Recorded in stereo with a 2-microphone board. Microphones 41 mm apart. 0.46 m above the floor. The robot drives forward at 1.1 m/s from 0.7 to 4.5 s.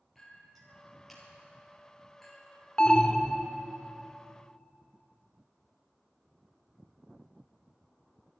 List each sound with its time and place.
0.1 s a clink: 5° left (ahead or behind), 6 m
2.8 s an alarm: 25° left (ahead or behind), 0.6 m; by 3.5 s 15° left (ahead or behind), 1.2 m